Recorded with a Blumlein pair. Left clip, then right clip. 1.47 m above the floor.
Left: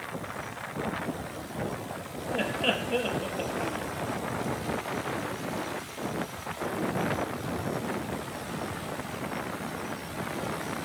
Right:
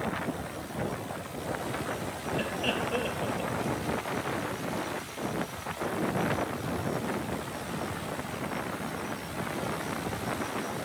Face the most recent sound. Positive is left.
turn(degrees=10)